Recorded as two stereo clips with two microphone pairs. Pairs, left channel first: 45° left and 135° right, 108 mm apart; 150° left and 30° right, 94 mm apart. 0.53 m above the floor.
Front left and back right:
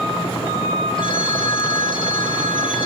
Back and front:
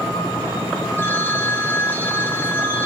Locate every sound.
1.0 s a phone ringing: 85° left, 4 m